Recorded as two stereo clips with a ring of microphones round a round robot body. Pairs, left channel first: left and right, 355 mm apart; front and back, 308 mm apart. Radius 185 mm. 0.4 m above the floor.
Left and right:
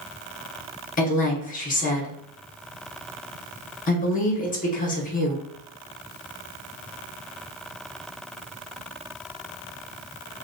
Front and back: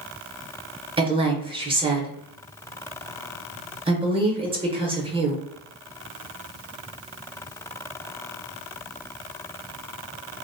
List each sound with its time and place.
1.0 s a woman speaking: 125° left, 0.8 m